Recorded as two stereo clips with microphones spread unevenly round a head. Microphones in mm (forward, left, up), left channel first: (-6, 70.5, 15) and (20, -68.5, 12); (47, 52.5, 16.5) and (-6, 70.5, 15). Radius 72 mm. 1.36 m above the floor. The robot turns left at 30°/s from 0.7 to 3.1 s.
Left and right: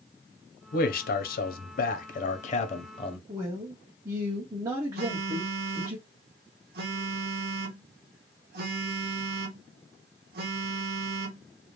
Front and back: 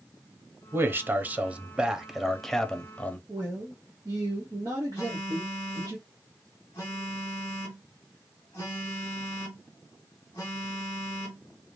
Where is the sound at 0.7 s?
120° left, 0.7 m; by 3.2 s 50° left, 0.7 m.